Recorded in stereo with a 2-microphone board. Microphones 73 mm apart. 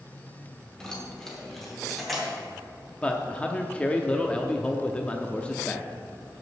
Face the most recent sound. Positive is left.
turn(degrees=15)  # may be behind; listen again after turning